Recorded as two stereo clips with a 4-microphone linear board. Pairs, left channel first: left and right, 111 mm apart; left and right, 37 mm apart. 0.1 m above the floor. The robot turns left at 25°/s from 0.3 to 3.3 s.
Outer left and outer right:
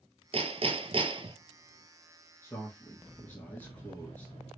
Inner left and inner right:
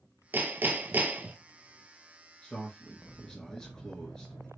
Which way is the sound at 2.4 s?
25° left (ahead or behind).